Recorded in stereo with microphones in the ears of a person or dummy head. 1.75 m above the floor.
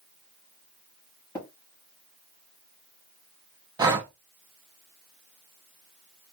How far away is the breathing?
About 0.7 m.